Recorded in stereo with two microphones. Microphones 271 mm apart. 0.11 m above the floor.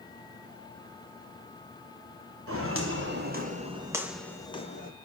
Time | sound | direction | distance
2.5 | footsteps | 55° right (ahead or behind) | 3 m